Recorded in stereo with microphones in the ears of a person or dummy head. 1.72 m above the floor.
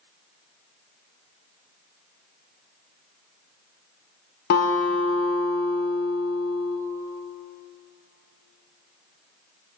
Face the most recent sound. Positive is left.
turn(degrees=55)  # may be behind; listen again after turning